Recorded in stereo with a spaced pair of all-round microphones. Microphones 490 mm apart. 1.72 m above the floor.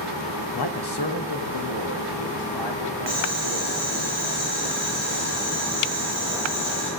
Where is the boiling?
40° left (ahead or behind), 7 m.